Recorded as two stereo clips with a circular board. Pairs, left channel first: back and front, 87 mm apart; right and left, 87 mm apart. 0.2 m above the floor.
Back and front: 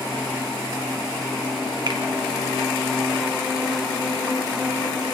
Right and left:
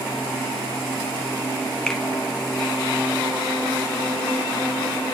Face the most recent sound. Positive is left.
turn(degrees=-10)